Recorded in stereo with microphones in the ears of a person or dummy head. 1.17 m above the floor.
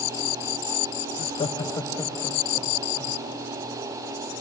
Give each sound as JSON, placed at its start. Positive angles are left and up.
{"t": 1.2, "sound": "laughter", "side_deg": 40, "distance_m": 0.8}